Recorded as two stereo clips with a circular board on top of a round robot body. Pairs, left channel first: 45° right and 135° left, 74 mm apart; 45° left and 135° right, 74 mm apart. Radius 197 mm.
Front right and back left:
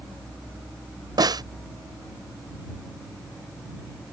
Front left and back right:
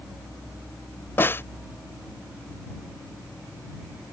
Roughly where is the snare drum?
Left.